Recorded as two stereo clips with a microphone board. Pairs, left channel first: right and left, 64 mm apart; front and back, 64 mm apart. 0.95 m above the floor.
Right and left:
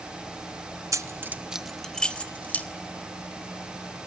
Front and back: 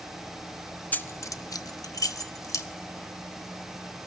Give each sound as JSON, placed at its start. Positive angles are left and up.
{"t": 0.9, "sound": "keys jangling", "azimuth_deg": 60, "distance_m": 0.5}